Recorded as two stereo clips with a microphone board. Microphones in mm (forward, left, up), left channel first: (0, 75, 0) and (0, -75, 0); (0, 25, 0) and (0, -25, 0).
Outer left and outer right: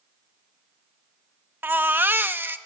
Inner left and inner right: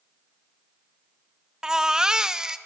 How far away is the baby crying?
About 0.7 m.